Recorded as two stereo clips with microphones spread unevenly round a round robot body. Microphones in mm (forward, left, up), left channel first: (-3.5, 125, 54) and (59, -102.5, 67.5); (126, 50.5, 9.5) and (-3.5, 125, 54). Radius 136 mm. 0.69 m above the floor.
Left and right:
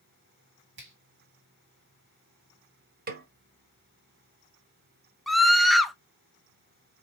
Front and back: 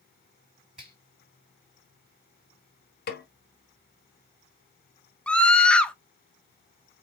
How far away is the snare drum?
About 0.9 m.